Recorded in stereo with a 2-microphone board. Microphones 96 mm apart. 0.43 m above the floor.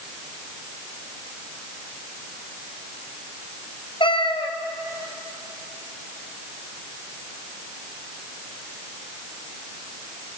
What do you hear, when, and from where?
4.0 s a cat meowing: 60° left (ahead or behind), 1.7 m